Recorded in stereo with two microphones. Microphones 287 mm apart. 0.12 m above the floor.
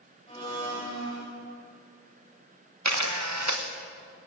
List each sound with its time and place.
0.3 s a blender: 20° left (ahead or behind), 7.5 m
2.9 s a camera shutter: 70° right (ahead or behind), 2.5 m